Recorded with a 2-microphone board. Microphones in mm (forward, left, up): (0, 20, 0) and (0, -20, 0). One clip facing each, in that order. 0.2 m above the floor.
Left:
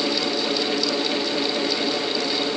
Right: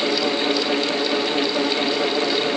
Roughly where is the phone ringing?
No phone ringing in this recording.